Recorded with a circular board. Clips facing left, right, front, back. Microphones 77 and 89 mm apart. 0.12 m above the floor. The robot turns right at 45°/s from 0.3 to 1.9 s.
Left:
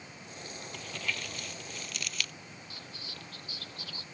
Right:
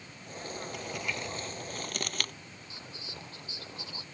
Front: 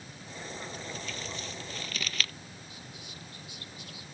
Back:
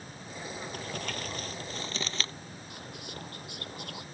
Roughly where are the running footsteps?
No running footsteps in this recording.